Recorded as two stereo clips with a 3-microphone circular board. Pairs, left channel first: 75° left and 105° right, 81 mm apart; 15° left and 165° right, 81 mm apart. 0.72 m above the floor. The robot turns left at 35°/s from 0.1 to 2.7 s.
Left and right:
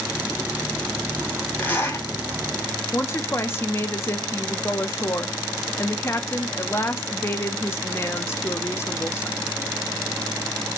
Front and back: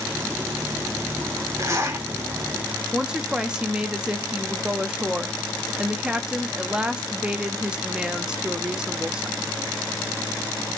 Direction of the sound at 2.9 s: 120° left.